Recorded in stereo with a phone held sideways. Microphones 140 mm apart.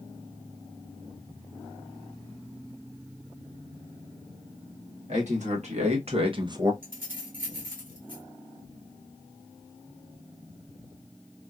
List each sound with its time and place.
5.1 s a man speaking: 60° right (ahead or behind), 1.7 m; by 6.7 s 20° right (ahead or behind), 0.6 m
6.8 s keys jangling: 75° right (ahead or behind), 1.3 m